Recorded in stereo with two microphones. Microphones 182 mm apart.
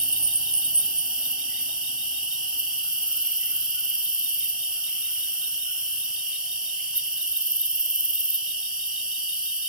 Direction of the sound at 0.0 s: 5° right (ahead or behind).